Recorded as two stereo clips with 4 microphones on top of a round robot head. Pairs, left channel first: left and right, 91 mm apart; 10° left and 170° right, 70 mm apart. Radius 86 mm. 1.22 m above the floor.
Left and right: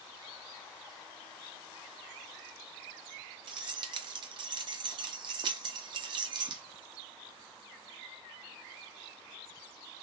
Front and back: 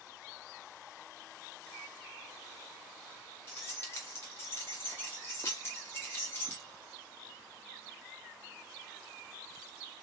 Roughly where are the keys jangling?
Ahead right.